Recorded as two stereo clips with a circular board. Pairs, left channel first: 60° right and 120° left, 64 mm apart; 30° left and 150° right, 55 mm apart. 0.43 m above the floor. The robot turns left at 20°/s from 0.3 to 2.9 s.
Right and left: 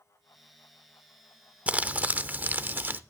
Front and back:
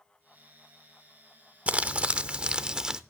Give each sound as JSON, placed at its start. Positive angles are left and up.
{"t": 1.7, "sound": "crumpling", "azimuth_deg": 170, "distance_m": 0.5}